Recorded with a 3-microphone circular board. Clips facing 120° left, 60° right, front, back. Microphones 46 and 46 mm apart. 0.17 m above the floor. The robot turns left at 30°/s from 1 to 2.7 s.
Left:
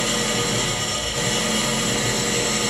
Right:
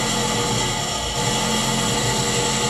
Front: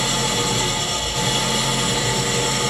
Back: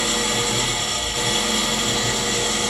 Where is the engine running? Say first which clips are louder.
Right 1 dB, front 1 dB; 105° left, 2.5 m; by 2.7 s 55° left, 2.5 m.